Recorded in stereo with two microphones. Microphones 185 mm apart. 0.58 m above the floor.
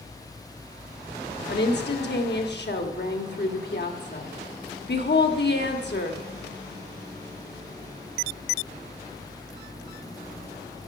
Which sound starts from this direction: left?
A woman speaking, at 1.5 s.